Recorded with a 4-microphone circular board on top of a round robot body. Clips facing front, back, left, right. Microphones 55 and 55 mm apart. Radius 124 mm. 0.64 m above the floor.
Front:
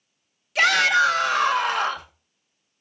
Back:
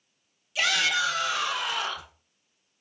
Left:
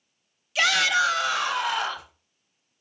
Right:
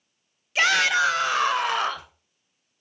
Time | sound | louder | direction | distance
0.6 | a shout | front 8 dB, right 1 dB | 35° right | 2 m